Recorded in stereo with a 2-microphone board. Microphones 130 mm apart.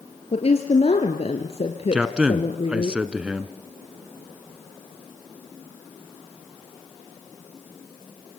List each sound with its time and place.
0.3 s a woman speaking: 50° left (ahead or behind), 2.5 m
1.9 s a man speaking: 10° right (ahead or behind), 1.4 m